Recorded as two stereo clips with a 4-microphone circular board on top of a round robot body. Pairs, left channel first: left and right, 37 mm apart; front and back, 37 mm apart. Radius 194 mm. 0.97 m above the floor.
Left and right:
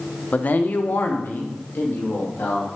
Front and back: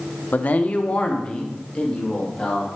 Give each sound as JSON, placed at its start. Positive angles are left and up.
{"t": 0.3, "sound": "a man speaking", "azimuth_deg": 40, "distance_m": 0.6}